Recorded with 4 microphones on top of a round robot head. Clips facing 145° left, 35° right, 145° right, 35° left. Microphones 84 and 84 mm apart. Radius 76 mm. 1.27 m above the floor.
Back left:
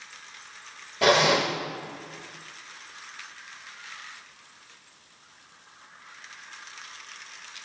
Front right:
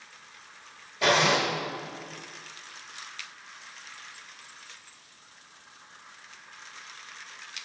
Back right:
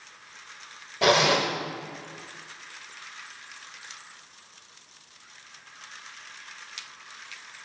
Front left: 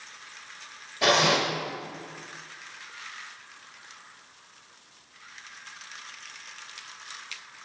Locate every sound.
1.0 s a zipper: 175° left, 1.2 m